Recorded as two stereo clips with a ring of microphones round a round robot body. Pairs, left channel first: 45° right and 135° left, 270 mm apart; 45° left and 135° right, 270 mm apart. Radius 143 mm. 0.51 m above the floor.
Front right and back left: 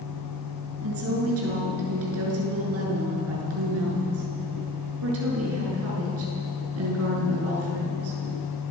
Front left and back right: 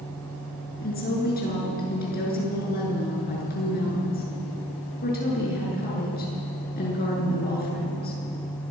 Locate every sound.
0.8 s a woman speaking: 100° left, 7.5 m